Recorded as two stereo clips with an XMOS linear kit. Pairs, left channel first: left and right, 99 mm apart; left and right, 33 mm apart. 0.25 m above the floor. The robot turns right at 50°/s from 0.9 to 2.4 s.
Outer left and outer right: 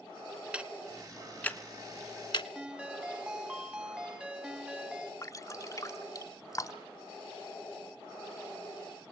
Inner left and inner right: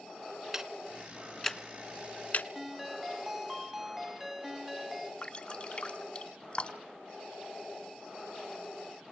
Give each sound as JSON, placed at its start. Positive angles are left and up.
{"t": 0.5, "sound": "ticking", "side_deg": -10, "distance_m": 0.9}
{"t": 2.5, "sound": "a ringtone", "side_deg": -10, "distance_m": 1.2}
{"t": 5.2, "sound": "dripping", "side_deg": 35, "distance_m": 1.6}